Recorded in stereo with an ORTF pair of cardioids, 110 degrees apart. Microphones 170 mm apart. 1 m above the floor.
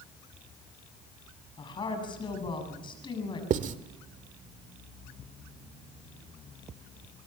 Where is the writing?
55° right, 1.5 m.